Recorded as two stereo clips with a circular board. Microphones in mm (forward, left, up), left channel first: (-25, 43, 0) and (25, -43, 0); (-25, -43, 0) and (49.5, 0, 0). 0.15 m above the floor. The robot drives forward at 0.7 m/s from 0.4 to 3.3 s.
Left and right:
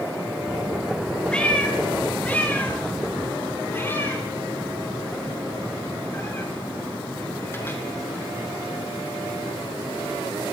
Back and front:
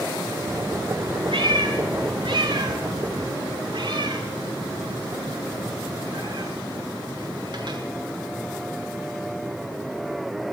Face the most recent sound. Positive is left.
turn(degrees=55)